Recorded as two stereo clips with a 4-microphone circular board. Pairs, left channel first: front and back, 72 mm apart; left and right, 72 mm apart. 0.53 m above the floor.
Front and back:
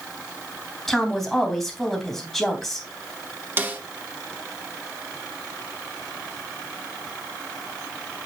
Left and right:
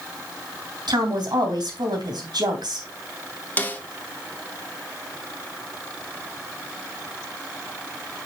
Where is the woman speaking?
85° right, 3 m.